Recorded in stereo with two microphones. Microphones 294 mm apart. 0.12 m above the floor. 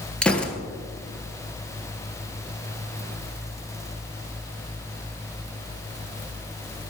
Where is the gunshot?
5° left (ahead or behind), 1.4 m.